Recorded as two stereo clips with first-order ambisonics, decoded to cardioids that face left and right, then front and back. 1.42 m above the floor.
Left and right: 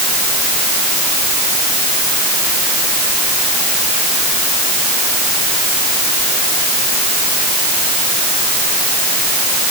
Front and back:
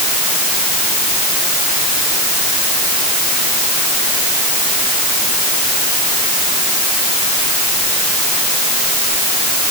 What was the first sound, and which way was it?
Only background noise.